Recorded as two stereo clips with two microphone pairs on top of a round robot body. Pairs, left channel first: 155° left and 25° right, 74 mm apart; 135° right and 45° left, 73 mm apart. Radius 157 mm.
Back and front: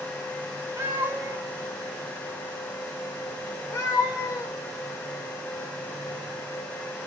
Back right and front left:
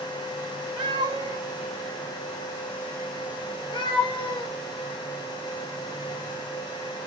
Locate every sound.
0.8 s a cat meowing: 30° left, 0.9 m; by 4.5 s 150° right, 1.6 m